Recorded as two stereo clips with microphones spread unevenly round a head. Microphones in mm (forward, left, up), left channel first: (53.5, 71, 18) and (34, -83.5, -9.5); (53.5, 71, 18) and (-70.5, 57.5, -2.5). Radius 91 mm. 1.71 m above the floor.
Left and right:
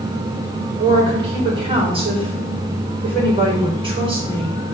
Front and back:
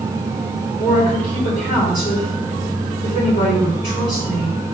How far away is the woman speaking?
About 4.5 m.